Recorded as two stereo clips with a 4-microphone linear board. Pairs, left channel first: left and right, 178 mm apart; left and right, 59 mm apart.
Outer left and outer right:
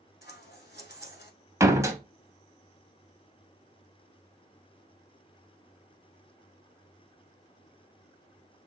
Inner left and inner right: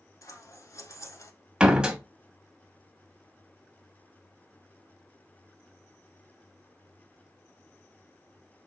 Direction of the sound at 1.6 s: 15° right (ahead or behind).